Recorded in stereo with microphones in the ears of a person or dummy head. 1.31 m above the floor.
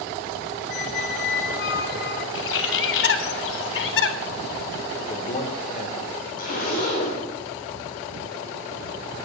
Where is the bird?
70° left (ahead or behind), 0.7 m.